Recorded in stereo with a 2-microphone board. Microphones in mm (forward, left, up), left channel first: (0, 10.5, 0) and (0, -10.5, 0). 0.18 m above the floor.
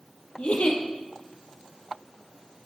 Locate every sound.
0.4 s a giggle: 65° left (ahead or behind), 2.5 m